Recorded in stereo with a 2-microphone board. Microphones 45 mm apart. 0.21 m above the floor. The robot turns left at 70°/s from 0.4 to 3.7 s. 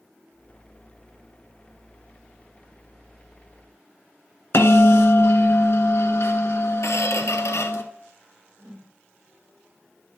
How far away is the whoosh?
About 4 m.